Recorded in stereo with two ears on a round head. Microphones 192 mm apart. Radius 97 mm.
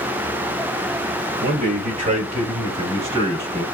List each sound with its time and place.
1.4 s a man speaking: 40° right (ahead or behind), 1.3 m; by 3.6 s 25° right (ahead or behind), 2.5 m